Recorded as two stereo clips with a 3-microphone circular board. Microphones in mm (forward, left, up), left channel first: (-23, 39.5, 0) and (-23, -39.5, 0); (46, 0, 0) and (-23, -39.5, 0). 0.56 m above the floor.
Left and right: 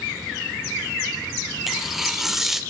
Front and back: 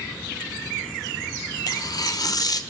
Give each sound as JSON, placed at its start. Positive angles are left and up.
{"t": 1.7, "sound": "tearing paper", "azimuth_deg": -5, "distance_m": 0.9}